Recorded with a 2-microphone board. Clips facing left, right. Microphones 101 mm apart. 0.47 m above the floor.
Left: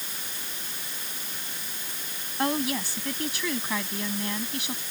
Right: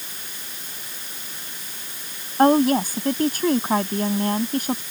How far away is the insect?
No insect in this recording.